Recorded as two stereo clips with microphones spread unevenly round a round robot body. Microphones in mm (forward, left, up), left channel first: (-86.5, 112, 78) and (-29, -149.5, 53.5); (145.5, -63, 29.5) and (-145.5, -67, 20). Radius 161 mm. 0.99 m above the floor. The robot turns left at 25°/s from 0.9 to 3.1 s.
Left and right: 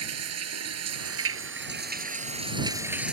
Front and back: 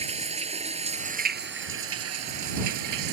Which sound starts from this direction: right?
Running water, at 0.0 s.